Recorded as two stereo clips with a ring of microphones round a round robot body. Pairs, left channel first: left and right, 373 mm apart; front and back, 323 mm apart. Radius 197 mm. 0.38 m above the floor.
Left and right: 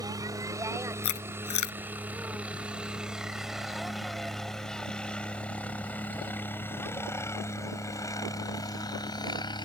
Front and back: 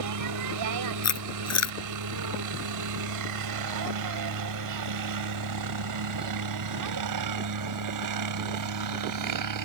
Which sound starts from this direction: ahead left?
Chewing, at 1.0 s.